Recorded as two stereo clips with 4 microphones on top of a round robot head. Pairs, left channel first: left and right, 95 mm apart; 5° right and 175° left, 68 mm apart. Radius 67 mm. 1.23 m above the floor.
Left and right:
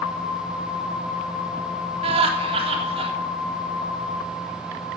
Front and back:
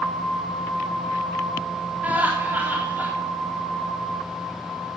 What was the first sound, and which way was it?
Laughter, 110° right.